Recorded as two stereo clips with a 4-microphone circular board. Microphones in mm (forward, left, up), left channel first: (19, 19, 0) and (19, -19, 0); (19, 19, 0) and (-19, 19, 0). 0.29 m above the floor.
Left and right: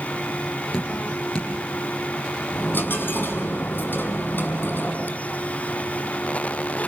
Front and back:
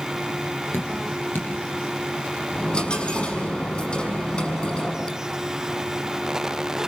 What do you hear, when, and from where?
0.7 s dripping: 20° left, 9 m
2.5 s a dropped coin: 60° left, 5.5 m